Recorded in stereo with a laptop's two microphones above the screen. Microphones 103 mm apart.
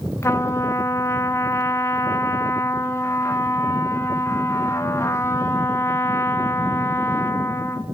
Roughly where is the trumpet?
Left.